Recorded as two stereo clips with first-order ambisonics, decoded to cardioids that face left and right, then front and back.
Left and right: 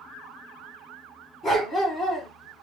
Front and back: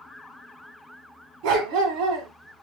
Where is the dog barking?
170° left, 1.8 m.